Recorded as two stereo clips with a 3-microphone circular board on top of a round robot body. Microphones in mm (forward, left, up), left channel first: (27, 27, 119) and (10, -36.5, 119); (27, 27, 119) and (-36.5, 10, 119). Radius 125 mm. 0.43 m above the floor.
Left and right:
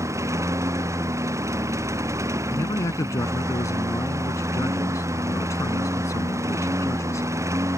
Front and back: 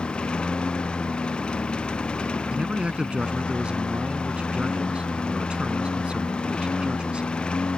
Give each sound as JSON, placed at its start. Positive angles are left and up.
{"t": 0.0, "sound": "a lawn mower", "azimuth_deg": -65}
{"t": 2.5, "sound": "a man speaking", "azimuth_deg": 120}